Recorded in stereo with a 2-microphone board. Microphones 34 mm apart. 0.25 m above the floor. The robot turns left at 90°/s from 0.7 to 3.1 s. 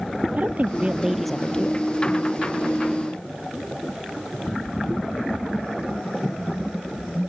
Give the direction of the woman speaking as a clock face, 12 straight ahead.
4 o'clock.